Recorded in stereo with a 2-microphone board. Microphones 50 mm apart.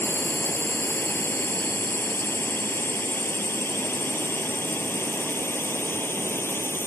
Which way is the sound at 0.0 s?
45° left (ahead or behind).